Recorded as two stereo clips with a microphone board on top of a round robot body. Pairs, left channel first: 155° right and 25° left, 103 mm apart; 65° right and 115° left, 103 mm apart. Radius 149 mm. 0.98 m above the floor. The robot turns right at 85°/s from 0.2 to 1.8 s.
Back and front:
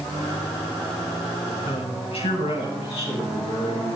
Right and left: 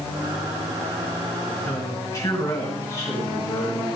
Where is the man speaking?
140° right, 7 m; by 3.9 s 130° right, 7 m.